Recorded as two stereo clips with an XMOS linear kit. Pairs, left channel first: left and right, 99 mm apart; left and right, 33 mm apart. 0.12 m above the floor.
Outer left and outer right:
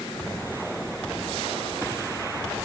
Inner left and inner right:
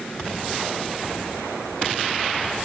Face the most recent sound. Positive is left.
No sound to turn to.